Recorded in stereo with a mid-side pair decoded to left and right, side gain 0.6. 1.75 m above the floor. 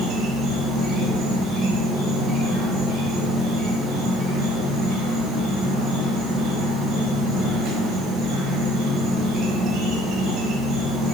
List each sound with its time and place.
0.0 s an insect: 55° right, 8 m